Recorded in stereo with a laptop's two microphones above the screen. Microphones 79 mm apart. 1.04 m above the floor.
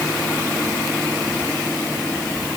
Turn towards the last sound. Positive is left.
No sound to turn to.